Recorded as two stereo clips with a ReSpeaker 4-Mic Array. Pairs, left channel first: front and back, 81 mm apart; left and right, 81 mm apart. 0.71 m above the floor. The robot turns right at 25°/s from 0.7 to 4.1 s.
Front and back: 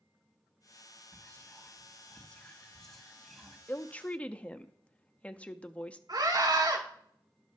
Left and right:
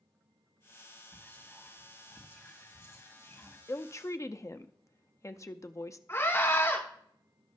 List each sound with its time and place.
1.1 s whispering: 35° left, 1.2 m; by 3.6 s 100° left, 1.2 m
3.7 s a woman speaking: 55° left, 0.6 m; by 6.0 s 65° left, 0.6 m
6.1 s a scream: 150° left, 6 m